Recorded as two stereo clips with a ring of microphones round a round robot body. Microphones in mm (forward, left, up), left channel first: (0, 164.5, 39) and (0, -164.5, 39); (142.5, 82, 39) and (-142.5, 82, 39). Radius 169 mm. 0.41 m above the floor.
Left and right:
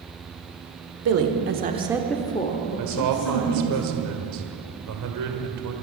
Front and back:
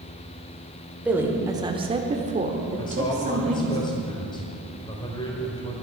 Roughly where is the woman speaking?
Right.